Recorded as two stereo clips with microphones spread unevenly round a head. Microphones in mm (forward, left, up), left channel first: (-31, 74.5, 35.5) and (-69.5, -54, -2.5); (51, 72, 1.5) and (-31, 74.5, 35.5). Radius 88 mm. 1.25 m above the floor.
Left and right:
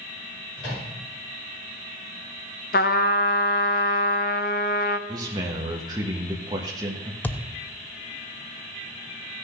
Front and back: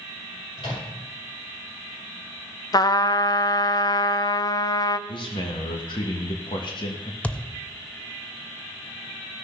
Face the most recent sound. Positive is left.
turn(degrees=100)